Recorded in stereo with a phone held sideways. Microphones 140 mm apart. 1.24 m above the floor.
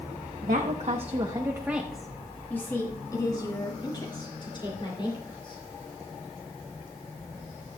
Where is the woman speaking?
70° right (ahead or behind), 1.0 m; by 5.6 s 40° left (ahead or behind), 3.5 m.